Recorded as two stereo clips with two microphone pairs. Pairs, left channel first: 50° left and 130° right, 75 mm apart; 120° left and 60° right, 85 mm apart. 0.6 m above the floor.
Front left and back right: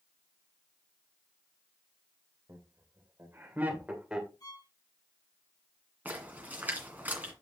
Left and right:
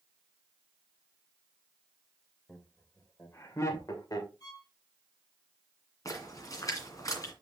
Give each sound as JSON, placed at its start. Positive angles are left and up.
{"t": 2.5, "sound": "laughter", "azimuth_deg": -170, "distance_m": 3.0}
{"t": 4.4, "sound": "a violin", "azimuth_deg": 80, "distance_m": 3.0}
{"t": 6.0, "sound": "a splash", "azimuth_deg": 165, "distance_m": 2.0}